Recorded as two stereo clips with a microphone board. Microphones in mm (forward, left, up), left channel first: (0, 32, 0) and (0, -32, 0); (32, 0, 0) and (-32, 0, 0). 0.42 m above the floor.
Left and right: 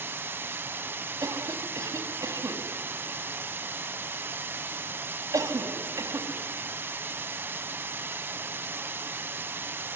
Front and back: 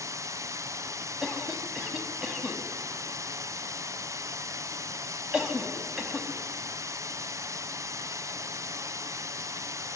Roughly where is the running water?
Behind right.